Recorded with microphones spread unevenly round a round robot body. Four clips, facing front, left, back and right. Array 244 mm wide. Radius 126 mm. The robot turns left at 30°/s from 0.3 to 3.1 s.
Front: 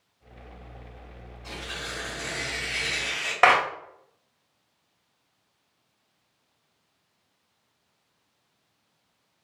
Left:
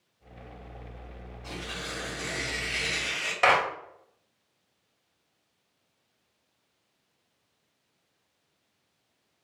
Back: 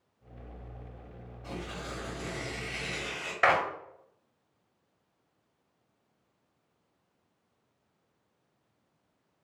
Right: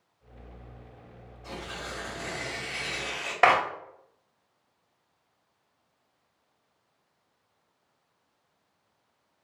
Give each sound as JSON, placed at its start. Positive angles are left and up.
{"t": 1.4, "sound": "tearing paper", "azimuth_deg": 165, "distance_m": 1.2}
{"t": 3.4, "sound": "a clap", "azimuth_deg": -35, "distance_m": 0.8}